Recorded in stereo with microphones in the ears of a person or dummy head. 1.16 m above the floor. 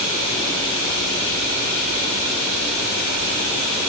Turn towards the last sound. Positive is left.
No sound to turn to.